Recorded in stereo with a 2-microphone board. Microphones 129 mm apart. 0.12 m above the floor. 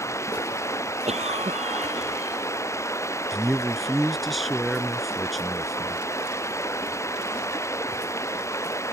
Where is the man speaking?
Centre (ahead or behind).